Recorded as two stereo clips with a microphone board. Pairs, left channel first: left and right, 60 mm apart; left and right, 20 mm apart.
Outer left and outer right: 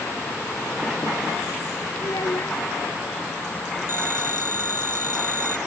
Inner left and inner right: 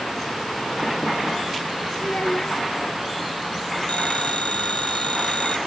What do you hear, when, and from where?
2.0 s a child speaking: 75° left (ahead or behind)
3.9 s a phone ringing: 65° left (ahead or behind)